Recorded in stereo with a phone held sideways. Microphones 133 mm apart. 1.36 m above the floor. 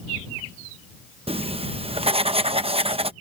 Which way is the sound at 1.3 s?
45° right (ahead or behind).